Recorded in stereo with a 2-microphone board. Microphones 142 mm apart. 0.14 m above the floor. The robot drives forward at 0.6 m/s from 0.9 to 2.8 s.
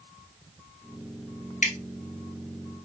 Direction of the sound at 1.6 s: 60° left (ahead or behind).